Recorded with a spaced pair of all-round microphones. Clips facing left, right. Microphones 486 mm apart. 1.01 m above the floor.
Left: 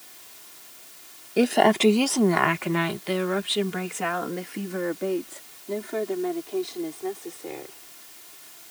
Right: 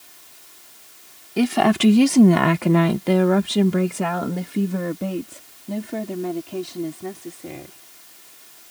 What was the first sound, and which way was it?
A woman speaking, 20° right (ahead or behind).